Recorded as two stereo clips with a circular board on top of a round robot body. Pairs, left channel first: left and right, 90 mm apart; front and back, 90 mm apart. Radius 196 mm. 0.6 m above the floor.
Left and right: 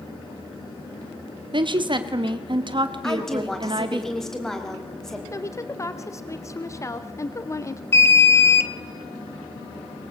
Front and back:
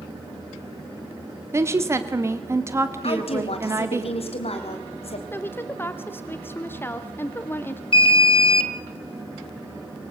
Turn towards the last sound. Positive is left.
turn(degrees=25)